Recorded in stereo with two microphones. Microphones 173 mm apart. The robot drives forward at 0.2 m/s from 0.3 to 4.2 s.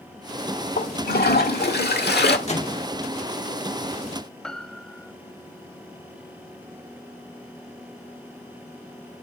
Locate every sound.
0.8 s a toilet flushing: 65° left (ahead or behind), 1.5 m; by 2.4 s 75° left (ahead or behind), 1.3 m
2.5 s a microwave: 40° left (ahead or behind), 1.8 m
4.4 s a piano: 5° left (ahead or behind), 0.7 m